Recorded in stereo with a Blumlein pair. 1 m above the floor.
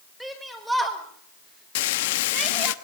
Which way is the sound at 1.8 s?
50° left.